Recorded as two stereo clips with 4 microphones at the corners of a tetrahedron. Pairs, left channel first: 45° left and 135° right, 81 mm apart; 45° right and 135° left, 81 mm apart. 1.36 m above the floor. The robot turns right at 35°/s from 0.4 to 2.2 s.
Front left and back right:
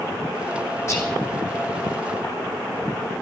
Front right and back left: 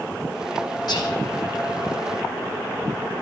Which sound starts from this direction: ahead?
Whispering, at 0.9 s.